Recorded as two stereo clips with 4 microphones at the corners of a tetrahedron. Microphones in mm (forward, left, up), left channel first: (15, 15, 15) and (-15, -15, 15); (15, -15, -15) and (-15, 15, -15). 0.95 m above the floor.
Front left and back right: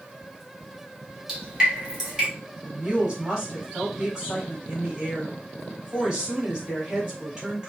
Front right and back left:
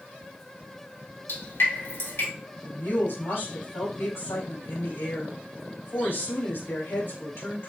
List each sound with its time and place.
1.3 s dripping: 60° right, 2.5 m
2.6 s a woman speaking: 60° right, 3.5 m